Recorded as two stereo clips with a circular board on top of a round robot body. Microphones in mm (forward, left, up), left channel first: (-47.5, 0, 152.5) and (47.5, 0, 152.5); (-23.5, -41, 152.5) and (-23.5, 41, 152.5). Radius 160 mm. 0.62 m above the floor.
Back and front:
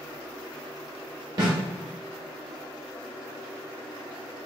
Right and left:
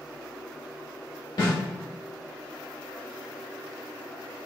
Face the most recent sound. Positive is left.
turn(degrees=-45)